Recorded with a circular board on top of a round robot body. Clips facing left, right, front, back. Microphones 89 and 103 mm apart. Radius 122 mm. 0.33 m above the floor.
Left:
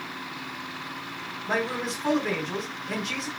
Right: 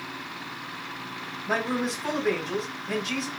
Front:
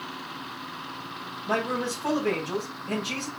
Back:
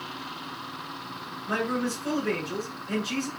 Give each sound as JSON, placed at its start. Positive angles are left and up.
{"t": 1.5, "sound": "a man speaking", "azimuth_deg": 0, "distance_m": 3.5}